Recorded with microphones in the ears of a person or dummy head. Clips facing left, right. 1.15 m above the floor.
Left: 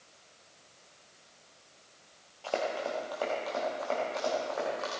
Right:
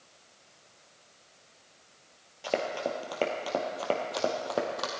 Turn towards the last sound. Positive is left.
turn(degrees=-50)  # may be behind; listen again after turning